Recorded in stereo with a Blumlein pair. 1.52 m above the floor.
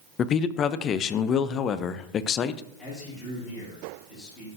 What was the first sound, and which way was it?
A man speaking, 30° left.